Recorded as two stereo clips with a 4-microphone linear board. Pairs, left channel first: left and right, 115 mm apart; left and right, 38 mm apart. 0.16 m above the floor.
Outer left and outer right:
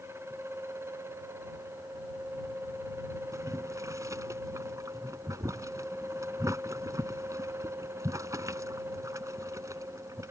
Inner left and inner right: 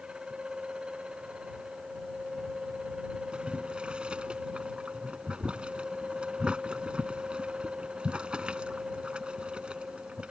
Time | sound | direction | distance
3.3 | boiling | 30° right (ahead or behind) | ?